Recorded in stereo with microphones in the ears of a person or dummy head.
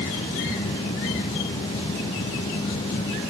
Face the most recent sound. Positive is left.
No sound to turn to.